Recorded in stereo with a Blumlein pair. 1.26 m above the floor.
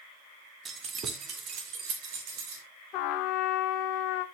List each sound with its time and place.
0.7 s keys jangling: 20° right, 1.8 m; by 2.6 s 45° right, 3.5 m
2.9 s a trumpet: 40° left, 1.3 m